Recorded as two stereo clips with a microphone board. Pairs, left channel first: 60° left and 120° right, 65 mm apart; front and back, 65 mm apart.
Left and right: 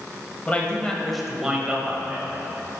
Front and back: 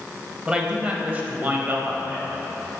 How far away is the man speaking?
About 1.1 m.